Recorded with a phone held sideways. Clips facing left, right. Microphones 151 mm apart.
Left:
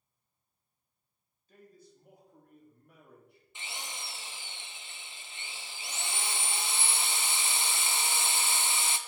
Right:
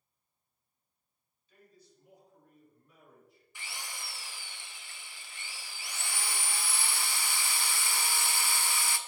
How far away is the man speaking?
About 2.5 m.